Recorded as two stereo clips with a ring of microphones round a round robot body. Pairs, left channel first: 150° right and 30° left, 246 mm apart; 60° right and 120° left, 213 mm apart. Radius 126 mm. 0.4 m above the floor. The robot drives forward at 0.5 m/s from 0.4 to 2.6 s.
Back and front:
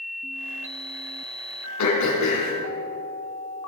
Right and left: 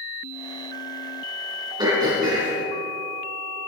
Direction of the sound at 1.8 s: 165° right.